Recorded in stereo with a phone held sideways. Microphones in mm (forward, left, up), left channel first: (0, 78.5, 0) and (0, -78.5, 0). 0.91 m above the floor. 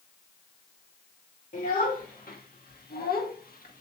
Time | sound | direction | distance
1.5 | a child speaking | 55° left (ahead or behind) | 1.6 m